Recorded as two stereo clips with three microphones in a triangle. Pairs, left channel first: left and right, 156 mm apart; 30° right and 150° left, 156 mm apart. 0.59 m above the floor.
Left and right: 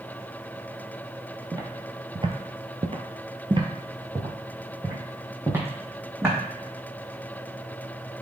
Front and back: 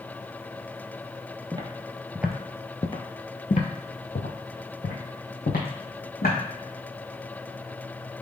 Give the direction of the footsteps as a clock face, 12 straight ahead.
5 o'clock.